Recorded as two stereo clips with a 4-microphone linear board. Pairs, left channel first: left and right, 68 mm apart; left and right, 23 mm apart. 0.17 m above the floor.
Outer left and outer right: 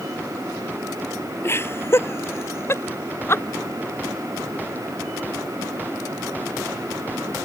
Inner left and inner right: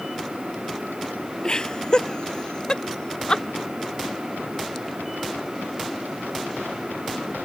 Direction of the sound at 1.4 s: 35° left (ahead or behind).